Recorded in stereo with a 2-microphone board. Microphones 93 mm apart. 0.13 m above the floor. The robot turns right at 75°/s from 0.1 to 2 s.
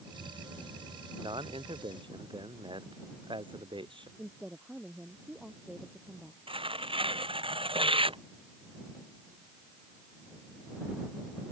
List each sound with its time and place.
1.2 s a man speaking: 125° right; by 4.1 s 65° right
4.2 s a woman speaking: 10° right (ahead or behind)
6.5 s tearing paper: 75° right (ahead or behind)